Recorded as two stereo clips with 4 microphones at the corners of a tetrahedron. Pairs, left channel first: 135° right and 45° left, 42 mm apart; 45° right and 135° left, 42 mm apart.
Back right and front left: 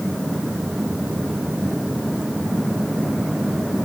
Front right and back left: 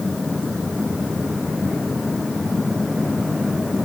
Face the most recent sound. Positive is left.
No sound to turn to.